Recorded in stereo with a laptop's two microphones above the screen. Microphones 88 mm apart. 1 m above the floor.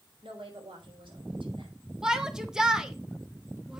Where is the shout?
5° right (ahead or behind), 0.8 m.